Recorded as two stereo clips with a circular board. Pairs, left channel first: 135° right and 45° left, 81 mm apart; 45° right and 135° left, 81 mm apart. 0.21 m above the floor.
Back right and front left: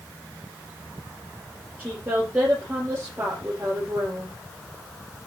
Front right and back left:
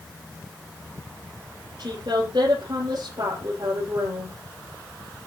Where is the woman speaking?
115° left, 6 m.